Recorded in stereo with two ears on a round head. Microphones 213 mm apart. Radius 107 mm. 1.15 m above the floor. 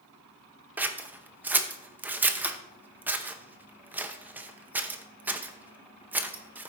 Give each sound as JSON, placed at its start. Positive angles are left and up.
{"t": 0.8, "sound": "scissors", "side_deg": -5, "distance_m": 0.6}